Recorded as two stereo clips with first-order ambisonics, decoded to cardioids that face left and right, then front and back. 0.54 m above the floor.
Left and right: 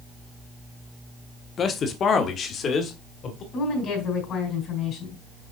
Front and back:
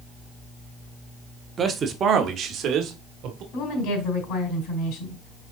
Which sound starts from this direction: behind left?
A man speaking, at 1.6 s.